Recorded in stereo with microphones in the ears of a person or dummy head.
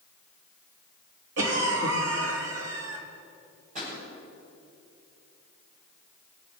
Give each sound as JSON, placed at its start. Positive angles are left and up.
{"t": 1.4, "sound": "a cough", "side_deg": -70, "distance_m": 3.5}
{"t": 3.8, "sound": "a pop", "side_deg": -40, "distance_m": 6.5}